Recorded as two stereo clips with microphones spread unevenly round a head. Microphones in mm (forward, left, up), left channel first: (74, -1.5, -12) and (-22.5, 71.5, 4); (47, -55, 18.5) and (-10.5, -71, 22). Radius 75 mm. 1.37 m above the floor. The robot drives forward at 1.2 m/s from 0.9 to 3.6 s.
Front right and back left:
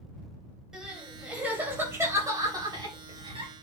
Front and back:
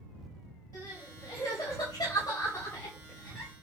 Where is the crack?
No crack in this recording.